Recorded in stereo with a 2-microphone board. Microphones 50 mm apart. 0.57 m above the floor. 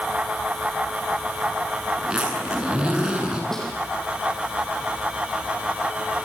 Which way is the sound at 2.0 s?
15° right (ahead or behind).